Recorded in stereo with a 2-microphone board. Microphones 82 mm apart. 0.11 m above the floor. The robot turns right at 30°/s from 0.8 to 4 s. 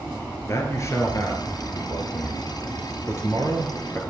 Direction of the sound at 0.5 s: 55° left.